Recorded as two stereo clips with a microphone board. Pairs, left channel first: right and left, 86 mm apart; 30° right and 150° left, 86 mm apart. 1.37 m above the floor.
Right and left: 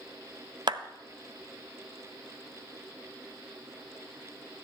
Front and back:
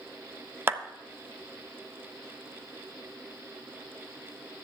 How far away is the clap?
About 0.7 m.